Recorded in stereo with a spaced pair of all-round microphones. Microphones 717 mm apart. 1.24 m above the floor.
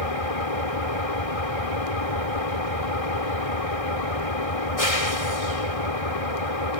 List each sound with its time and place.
0.0 s an engine running: 50° left (ahead or behind)